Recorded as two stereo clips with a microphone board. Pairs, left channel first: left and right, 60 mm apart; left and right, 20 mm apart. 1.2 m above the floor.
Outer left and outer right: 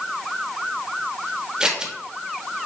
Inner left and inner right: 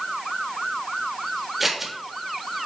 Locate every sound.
1.6 s scissors: 15° right (ahead or behind), 0.9 m